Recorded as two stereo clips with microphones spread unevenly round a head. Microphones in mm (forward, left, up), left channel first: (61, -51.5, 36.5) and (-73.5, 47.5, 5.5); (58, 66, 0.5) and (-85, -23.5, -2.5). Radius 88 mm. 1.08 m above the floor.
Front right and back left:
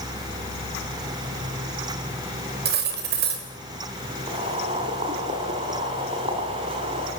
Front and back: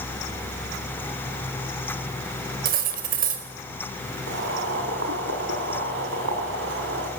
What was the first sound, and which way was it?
Cutlery clinking, 175° left.